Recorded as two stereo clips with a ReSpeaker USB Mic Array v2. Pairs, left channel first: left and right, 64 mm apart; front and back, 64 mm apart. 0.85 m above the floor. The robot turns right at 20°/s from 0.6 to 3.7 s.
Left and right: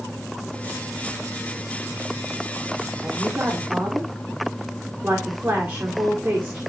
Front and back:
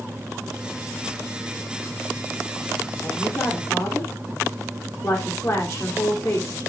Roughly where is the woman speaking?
Ahead right.